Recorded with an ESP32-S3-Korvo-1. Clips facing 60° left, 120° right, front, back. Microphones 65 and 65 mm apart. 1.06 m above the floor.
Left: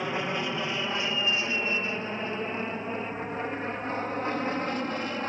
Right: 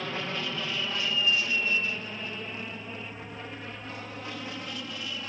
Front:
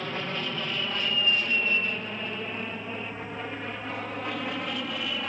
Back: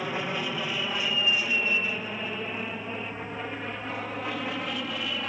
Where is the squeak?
I don't hear a squeak.